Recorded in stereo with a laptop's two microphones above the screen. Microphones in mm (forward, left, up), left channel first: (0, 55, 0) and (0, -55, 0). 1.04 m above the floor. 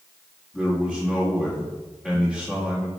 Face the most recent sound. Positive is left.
turn(degrees=5)  # may be behind; listen again after turning